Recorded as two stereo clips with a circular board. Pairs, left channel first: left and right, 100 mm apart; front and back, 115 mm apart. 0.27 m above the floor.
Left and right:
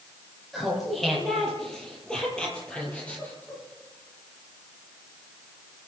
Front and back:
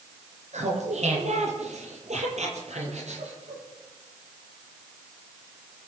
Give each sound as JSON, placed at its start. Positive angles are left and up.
{"t": 0.5, "sound": "laughter", "azimuth_deg": 180, "distance_m": 7.5}